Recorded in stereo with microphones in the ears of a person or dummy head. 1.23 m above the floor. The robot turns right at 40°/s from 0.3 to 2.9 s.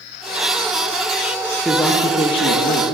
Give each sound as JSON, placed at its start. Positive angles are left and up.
{"t": 1.6, "sound": "a man speaking", "azimuth_deg": 0, "distance_m": 0.7}